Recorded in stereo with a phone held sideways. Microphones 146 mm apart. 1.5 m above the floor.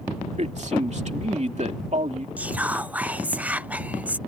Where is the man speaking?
55° right (ahead or behind).